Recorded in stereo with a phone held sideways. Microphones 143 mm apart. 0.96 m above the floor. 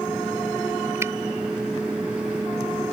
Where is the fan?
10° right (ahead or behind).